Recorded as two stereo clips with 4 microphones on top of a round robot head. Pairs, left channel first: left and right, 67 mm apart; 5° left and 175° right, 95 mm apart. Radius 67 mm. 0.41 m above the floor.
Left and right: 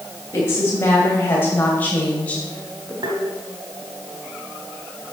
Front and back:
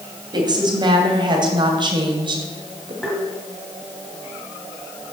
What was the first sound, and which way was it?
A woman speaking, 145° left.